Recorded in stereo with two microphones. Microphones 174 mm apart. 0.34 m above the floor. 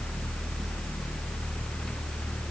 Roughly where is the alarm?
I don't hear an alarm.